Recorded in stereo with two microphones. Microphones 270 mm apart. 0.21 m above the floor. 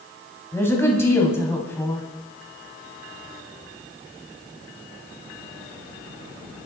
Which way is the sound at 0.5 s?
10° left (ahead or behind).